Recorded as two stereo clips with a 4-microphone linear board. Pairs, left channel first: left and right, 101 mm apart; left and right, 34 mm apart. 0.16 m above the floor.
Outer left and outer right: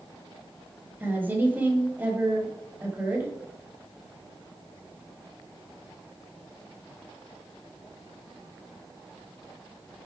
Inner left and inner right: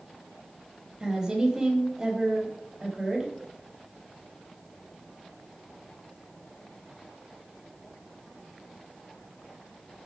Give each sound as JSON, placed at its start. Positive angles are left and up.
{"t": 1.0, "sound": "a woman speaking", "side_deg": -20, "distance_m": 5.0}